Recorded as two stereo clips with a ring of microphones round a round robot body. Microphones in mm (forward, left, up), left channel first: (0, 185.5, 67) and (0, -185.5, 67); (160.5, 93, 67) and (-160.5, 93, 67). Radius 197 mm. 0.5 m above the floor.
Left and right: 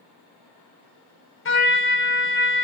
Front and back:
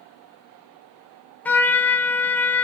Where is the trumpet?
80° left, 0.6 m.